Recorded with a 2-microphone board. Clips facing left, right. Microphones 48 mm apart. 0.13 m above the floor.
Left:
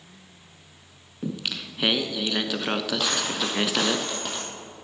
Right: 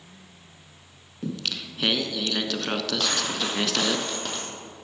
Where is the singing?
10° left (ahead or behind), 0.6 m.